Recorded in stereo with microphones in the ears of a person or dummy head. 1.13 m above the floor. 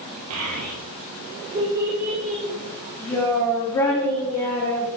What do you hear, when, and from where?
0.3 s a child speaking: 80° right, 1.0 m; by 5.0 s 20° left (ahead or behind), 3 m